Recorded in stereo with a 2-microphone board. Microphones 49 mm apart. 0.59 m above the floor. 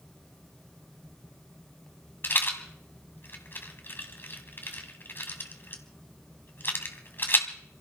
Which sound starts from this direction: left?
A rattle, at 2.2 s.